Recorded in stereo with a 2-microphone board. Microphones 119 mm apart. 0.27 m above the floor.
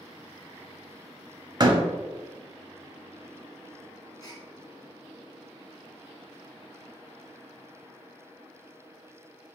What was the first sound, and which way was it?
A door slam, 35° right (ahead or behind).